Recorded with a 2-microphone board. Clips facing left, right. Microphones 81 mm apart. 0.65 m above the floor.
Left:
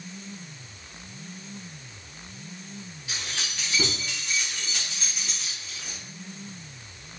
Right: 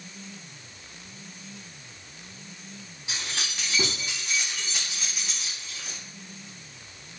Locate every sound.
3.1 s keys jangling: 20° right (ahead or behind), 4.5 m; by 6.0 s centre (ahead or behind), 4 m